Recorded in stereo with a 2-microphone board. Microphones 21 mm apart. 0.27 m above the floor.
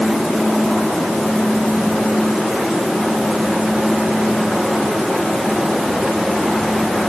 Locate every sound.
Only background noise.